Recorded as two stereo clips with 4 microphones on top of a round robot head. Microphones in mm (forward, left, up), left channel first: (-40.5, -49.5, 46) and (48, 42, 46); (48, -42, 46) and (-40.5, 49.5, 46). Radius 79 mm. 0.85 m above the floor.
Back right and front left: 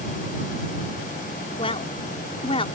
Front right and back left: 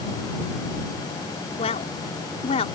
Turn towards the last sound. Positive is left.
turn(degrees=-90)